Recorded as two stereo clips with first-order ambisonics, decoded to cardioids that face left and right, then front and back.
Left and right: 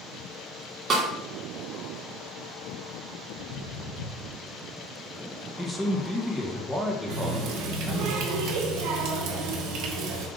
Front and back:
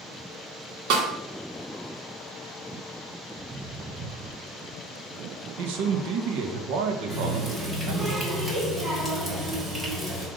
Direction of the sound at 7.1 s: 100° right.